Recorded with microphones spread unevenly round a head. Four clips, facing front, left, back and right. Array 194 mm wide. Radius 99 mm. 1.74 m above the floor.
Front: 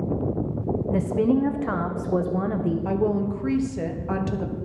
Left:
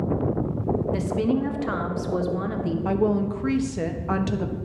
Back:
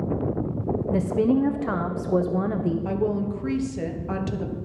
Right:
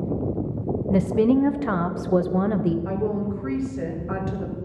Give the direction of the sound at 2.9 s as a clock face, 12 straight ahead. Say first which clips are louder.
Left 3 dB, front 2 dB; 11 o'clock.